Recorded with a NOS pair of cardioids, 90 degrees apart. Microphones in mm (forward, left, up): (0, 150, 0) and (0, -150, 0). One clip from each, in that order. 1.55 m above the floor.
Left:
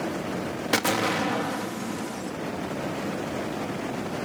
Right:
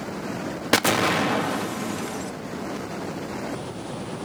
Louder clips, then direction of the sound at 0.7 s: Right 4 dB; 20° right.